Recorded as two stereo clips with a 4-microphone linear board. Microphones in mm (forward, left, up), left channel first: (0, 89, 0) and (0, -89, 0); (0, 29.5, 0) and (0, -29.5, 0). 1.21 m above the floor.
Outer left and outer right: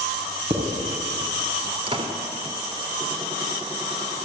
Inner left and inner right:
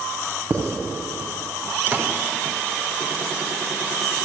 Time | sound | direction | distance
0.5 | writing | 40° right (ahead or behind) | 4.5 m
1.9 | a door slam | 30° right (ahead or behind) | 3 m